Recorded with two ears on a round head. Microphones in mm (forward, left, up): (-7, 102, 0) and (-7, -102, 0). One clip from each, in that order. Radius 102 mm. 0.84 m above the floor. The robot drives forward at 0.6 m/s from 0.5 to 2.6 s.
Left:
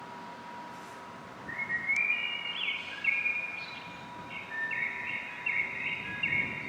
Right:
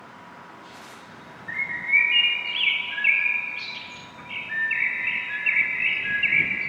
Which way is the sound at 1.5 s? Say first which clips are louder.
Right 8 dB; 25° right (ahead or behind).